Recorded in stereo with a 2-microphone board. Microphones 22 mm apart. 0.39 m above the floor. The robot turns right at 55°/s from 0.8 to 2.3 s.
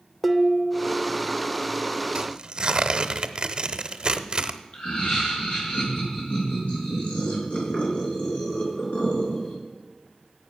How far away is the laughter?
About 6 m.